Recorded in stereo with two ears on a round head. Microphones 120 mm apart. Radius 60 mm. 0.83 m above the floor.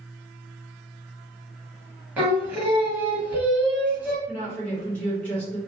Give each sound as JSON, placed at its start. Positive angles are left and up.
{"t": 2.2, "sound": "singing", "side_deg": -10, "distance_m": 1.0}
{"t": 4.3, "sound": "a woman speaking", "side_deg": 15, "distance_m": 1.6}